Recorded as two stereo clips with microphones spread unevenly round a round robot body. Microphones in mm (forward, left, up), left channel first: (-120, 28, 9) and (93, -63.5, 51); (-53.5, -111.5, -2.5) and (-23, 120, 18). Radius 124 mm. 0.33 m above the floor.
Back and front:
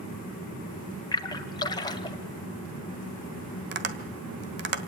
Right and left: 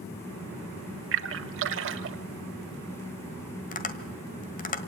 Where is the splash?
100° left, 1.4 m.